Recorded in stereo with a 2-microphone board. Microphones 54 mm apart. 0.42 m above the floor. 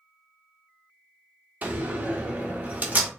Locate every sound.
1.6 s a door slam: 30° right (ahead or behind), 0.6 m